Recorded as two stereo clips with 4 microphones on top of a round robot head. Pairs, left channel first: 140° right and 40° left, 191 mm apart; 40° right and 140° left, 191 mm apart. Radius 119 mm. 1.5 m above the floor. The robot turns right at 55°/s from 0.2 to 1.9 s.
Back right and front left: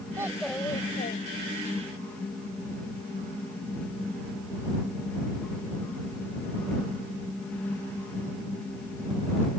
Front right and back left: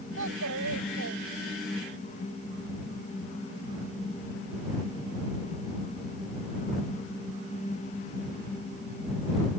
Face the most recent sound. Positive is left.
turn(degrees=-150)